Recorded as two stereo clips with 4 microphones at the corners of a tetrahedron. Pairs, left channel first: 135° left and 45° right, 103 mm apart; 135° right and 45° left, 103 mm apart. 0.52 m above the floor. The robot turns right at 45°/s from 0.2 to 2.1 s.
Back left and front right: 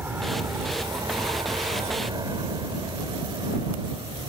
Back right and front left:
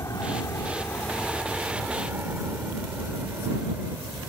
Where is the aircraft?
100° right; by 4.3 s 25° right.